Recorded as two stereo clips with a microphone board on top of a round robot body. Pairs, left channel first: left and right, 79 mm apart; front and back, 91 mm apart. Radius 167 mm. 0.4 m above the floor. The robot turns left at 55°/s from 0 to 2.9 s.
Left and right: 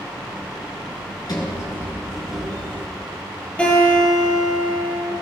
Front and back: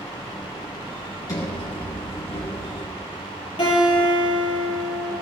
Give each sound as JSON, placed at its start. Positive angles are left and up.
{"t": 1.3, "sound": "a sliding door", "azimuth_deg": 55, "distance_m": 3.5}
{"t": 3.6, "sound": "a guitar", "azimuth_deg": 15, "distance_m": 6.5}